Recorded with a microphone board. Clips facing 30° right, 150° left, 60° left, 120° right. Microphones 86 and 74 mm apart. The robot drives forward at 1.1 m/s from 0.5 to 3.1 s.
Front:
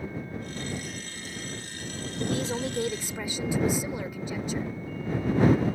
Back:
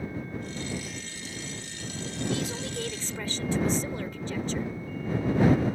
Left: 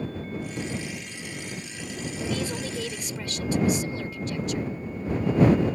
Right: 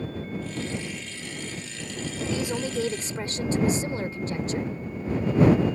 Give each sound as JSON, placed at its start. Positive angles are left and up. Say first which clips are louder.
{"t": 2.2, "sound": "a woman speaking", "louder": "front 3 dB, right 2 dB", "azimuth_deg": -45}